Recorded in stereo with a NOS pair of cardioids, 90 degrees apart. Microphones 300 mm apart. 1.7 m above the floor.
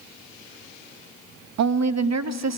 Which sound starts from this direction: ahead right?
A woman speaking, at 1.6 s.